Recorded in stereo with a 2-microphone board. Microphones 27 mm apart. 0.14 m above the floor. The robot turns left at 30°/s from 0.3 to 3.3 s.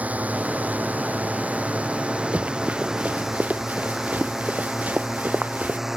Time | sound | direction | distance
0.0 | a drone | 70° right (ahead or behind) | ?
2.3 | running footsteps | 55° right (ahead or behind) | ?